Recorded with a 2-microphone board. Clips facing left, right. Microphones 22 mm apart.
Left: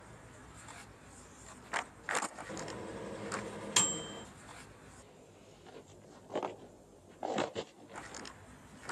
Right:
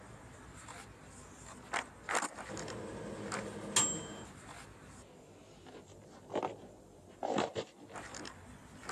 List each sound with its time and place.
2.5 s a microwave: 35° left (ahead or behind), 0.7 m